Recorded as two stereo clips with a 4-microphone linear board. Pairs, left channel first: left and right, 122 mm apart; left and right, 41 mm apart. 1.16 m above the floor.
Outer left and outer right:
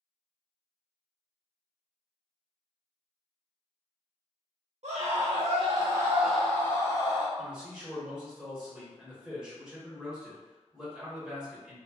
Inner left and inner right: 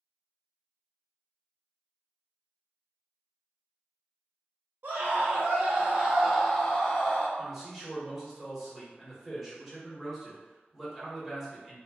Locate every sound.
4.8 s a scream: 65° right (ahead or behind), 1.0 m; by 7.3 s 35° left (ahead or behind), 1.1 m
7.4 s a man speaking: 5° right (ahead or behind), 1.4 m